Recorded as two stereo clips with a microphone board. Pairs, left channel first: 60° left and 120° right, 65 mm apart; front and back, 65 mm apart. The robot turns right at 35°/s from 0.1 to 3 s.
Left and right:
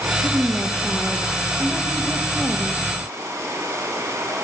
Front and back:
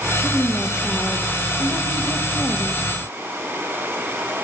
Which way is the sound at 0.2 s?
50° right.